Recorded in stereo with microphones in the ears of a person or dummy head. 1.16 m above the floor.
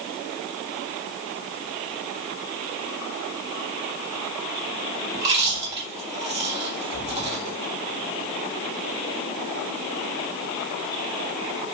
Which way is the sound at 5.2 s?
30° right (ahead or behind).